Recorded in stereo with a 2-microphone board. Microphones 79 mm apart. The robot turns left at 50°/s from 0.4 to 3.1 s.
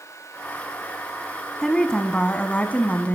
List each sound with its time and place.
1.6 s a woman speaking: 5° left (ahead or behind), 1.0 m; by 3.2 s 20° left (ahead or behind), 1.0 m